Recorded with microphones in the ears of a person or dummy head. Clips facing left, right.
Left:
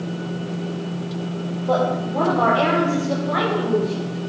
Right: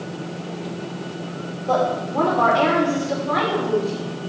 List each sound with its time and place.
1.7 s a woman speaking: 5° left (ahead or behind), 2.5 m